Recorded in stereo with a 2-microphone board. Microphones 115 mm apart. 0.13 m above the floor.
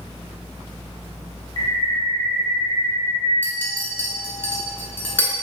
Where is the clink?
15° left (ahead or behind), 0.7 m.